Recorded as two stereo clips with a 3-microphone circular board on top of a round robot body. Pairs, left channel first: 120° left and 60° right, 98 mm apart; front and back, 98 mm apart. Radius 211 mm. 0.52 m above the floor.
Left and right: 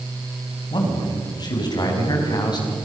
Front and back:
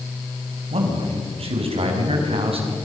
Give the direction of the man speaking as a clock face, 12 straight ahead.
6 o'clock.